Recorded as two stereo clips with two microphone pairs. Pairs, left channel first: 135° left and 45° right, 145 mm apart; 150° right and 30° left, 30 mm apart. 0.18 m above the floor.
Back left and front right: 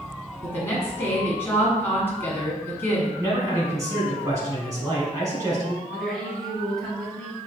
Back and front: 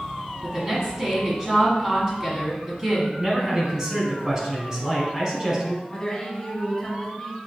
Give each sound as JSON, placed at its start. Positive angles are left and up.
{"t": 0.4, "sound": "a woman speaking", "azimuth_deg": 70, "distance_m": 1.3}
{"t": 3.2, "sound": "a man speaking", "azimuth_deg": -5, "distance_m": 1.2}
{"t": 5.9, "sound": "a woman speaking", "azimuth_deg": -145, "distance_m": 1.1}